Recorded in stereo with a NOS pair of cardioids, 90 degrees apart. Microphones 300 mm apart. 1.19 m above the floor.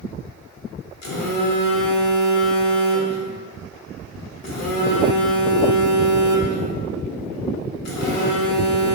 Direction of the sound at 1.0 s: 65° left.